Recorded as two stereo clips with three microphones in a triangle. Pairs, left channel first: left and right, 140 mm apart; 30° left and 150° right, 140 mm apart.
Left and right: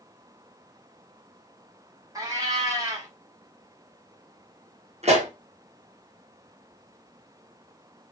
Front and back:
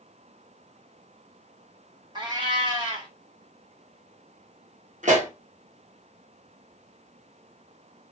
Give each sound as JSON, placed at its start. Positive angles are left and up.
{"t": 2.1, "sound": "a cat meowing", "azimuth_deg": -130, "distance_m": 1.2}
{"t": 5.0, "sound": "a pop", "azimuth_deg": -125, "distance_m": 1.3}